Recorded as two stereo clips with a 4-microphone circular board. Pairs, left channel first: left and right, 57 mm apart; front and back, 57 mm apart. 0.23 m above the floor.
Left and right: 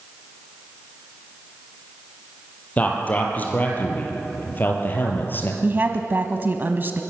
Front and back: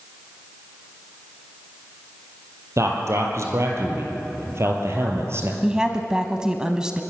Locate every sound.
2.8 s a man speaking: 155° left, 5 m; by 5.5 s 140° left, 4 m
5.6 s a woman speaking: 110° right, 1.2 m